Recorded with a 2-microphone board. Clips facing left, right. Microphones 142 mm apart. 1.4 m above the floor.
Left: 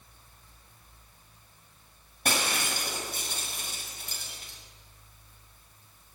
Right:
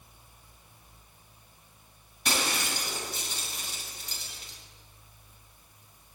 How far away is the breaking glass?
About 6 m.